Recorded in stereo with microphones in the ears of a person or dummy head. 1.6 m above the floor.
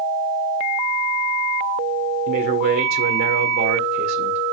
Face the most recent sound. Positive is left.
turn(degrees=-55)  # may be behind; listen again after turning